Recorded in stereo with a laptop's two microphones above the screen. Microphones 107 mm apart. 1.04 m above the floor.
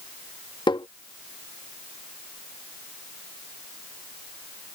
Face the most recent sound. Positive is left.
turn(degrees=45)  # may be behind; listen again after turning